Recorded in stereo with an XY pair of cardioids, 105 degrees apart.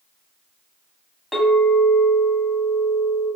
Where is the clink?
5° left, 1.3 m.